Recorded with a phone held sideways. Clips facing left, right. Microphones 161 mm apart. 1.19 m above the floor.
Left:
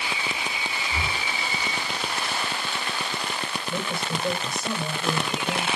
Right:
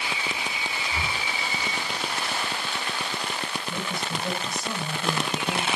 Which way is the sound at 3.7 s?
50° left (ahead or behind).